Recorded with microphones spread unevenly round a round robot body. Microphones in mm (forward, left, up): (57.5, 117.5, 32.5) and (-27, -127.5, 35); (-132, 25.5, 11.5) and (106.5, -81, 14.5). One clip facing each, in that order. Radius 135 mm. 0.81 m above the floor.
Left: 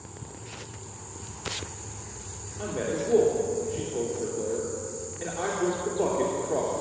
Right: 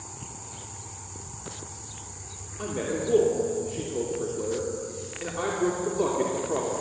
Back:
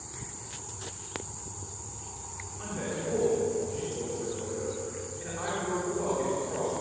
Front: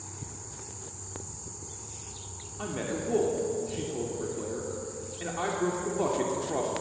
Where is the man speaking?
30° right, 3 m.